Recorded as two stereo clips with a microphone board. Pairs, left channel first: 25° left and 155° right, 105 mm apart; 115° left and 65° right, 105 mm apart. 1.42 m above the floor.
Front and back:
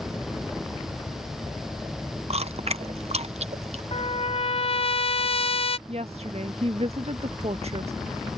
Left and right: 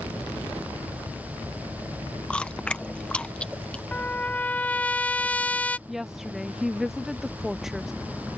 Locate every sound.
2.3 s chewing: 170° right
3.9 s a trumpet: 35° left
5.9 s a woman speaking: 155° right